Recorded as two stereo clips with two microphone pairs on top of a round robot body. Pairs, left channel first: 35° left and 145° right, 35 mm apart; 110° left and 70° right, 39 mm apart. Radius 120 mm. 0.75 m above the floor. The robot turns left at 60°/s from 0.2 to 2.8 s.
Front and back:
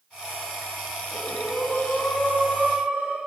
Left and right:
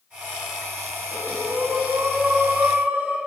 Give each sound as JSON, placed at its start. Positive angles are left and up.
{"t": 1.1, "sound": "breathing", "azimuth_deg": 20, "distance_m": 3.0}